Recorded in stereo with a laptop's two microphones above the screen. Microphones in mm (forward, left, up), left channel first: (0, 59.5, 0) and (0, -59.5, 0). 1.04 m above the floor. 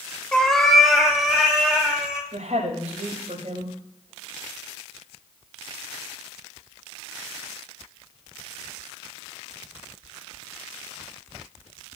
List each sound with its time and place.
0.3 s a cat meowing: 10° left (ahead or behind), 0.8 m; by 2.2 s 5° right (ahead or behind), 2.5 m
2.3 s a woman speaking: 80° right, 5 m